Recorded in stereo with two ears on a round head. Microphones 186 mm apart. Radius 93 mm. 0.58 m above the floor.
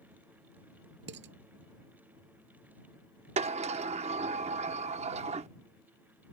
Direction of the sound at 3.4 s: 30° right (ahead or behind).